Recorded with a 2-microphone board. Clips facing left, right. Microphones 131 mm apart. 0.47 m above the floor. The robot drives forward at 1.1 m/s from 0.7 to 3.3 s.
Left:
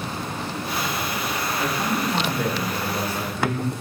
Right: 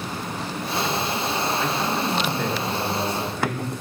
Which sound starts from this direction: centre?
A man speaking, at 1.6 s.